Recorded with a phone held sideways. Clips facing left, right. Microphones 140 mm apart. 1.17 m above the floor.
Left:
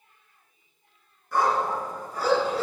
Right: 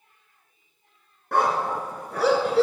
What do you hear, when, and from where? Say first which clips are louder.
1.3 s a dog barking: right 1 dB; 65° right (ahead or behind), 3 m; by 2.6 s 70° right (ahead or behind), 4 m